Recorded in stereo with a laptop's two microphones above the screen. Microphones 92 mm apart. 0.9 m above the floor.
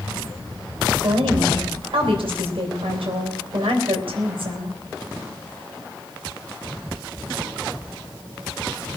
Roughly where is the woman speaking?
Right.